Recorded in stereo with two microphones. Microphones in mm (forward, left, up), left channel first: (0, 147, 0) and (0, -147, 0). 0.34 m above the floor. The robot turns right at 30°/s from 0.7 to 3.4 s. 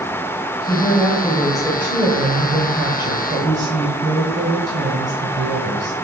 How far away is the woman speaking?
About 1.9 m.